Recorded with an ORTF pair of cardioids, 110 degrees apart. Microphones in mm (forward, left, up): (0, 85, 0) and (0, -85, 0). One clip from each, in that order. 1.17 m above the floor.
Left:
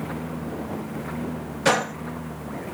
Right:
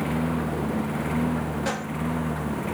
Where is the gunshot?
60° left.